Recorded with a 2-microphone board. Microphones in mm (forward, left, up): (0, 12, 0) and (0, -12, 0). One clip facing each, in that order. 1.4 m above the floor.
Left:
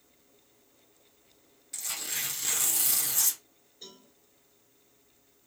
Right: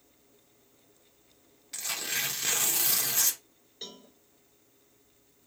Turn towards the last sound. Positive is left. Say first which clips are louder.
# right 5 dB
turn(degrees=-75)  # may be behind; listen again after turning